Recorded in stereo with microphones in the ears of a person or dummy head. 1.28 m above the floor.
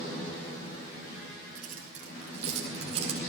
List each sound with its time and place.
1.6 s keys jangling: 50° right (ahead or behind), 5.5 m; by 3.2 s 40° right (ahead or behind), 5 m